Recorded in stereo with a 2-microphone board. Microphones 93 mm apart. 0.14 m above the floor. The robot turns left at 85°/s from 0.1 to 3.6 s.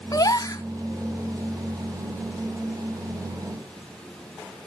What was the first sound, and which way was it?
A gasp, 110° left.